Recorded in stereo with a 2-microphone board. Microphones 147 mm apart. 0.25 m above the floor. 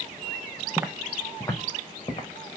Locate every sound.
0.8 s footsteps: 15° right (ahead or behind), 1.0 m; by 2.3 s 35° left (ahead or behind), 2 m